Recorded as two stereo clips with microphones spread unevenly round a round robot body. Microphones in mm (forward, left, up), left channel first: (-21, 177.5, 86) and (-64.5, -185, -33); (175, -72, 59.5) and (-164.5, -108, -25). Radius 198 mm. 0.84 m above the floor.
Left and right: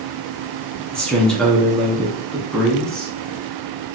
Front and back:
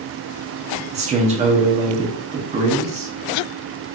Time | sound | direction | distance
0.9 | a man speaking | 160° right | 1.0 m